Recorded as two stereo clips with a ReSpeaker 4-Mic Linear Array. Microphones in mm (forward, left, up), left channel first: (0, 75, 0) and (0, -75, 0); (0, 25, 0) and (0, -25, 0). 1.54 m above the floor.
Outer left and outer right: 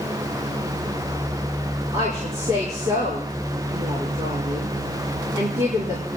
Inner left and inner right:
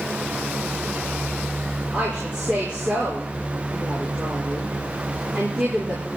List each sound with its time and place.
1.9 s a woman speaking: 25° right (ahead or behind), 5.5 m